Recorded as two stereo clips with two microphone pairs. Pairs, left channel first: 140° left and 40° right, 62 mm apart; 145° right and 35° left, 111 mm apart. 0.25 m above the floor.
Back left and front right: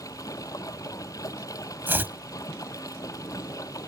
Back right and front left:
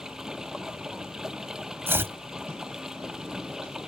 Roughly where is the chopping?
Ahead.